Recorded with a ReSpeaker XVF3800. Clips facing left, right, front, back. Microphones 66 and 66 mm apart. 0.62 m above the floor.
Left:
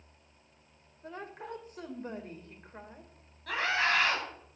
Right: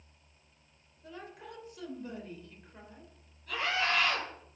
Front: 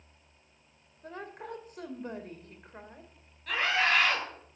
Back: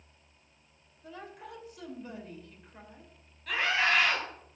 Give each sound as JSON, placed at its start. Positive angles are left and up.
{"t": 1.0, "sound": "a woman speaking", "azimuth_deg": 40, "distance_m": 2.5}
{"t": 3.5, "sound": "a scream", "azimuth_deg": 85, "distance_m": 9.0}